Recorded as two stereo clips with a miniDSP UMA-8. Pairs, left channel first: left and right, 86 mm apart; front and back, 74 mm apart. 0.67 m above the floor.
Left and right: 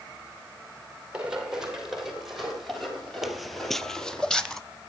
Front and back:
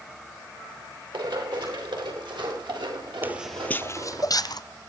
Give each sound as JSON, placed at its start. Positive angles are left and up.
{"t": 1.1, "sound": "running footsteps", "azimuth_deg": -170, "distance_m": 9.0}
{"t": 3.2, "sound": "footsteps", "azimuth_deg": -175, "distance_m": 0.7}